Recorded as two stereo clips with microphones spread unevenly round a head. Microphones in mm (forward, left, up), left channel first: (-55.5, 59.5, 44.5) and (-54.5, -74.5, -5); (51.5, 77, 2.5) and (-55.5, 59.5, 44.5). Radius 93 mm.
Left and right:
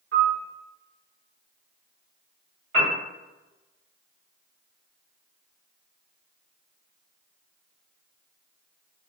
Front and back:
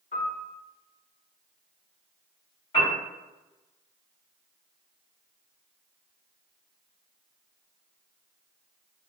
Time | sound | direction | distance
0.1 | a piano | 60° right | 1.0 m
2.7 | a piano | 55° right | 1.6 m